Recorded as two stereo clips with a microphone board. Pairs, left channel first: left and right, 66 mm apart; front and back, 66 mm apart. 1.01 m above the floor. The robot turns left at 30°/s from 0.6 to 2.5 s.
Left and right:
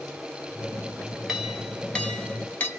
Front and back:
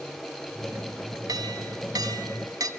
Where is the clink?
175° right, 1.1 m; by 2.7 s 150° left, 1.1 m.